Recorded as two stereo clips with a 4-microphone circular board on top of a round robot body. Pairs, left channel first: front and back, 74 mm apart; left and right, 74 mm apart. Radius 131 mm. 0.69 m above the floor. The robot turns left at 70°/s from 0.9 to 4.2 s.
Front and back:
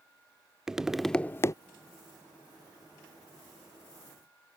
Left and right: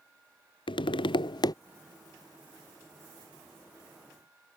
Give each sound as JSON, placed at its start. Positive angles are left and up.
{"t": 0.7, "sound": "tapping", "azimuth_deg": 95}